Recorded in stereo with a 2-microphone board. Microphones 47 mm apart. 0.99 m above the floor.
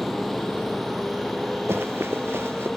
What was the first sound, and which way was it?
A motorcycle, 10° right (ahead or behind).